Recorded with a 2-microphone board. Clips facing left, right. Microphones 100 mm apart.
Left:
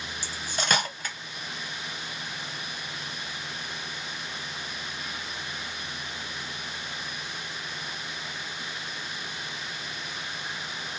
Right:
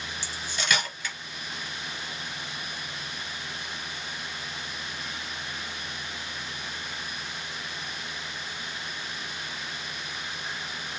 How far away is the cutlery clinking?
About 1.0 m.